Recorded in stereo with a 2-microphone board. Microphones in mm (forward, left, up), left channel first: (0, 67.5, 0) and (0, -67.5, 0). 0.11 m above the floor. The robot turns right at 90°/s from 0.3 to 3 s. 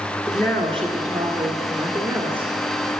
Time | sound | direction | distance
0.3 | a woman speaking | 135° left | 1.3 m